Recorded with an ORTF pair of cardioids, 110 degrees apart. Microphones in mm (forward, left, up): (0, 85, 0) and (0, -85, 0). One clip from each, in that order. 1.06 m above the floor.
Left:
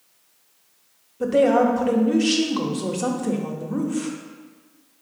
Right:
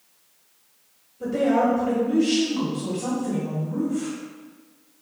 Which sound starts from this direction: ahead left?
A woman speaking, at 1.2 s.